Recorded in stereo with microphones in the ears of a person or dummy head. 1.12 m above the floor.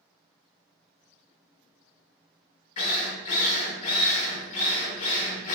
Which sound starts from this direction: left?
A drill, at 2.8 s.